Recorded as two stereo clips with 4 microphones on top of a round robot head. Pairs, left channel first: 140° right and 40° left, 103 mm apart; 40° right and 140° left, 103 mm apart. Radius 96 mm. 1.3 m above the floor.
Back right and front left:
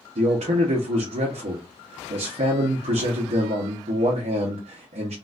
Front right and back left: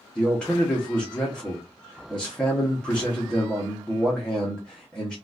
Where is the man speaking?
45° left, 0.9 m.